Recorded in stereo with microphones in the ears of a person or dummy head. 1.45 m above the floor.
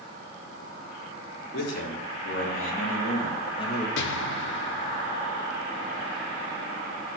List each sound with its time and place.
1.5 s a man speaking: 60° left (ahead or behind), 2 m; by 3.9 s 25° left (ahead or behind), 2 m
4.0 s an explosion: 70° left (ahead or behind), 0.5 m